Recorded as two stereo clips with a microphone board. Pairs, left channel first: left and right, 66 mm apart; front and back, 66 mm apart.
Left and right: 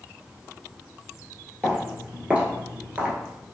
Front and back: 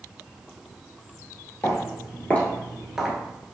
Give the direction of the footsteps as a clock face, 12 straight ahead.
1 o'clock.